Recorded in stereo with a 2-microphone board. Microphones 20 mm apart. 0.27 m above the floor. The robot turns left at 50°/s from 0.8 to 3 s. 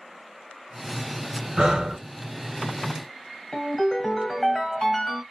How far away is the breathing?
About 1.1 m.